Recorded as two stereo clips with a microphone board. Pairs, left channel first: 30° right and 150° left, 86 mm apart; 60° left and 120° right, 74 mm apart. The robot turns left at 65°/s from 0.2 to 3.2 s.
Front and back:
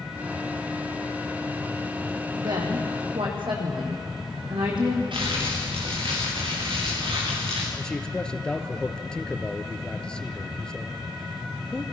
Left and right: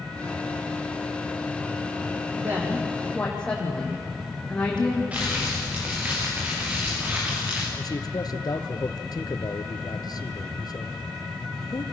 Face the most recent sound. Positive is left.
turn(degrees=50)